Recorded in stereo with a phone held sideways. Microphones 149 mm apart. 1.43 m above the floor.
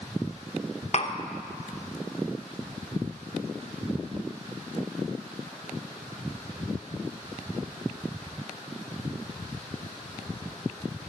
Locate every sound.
0.9 s tapping: 50° left (ahead or behind), 0.8 m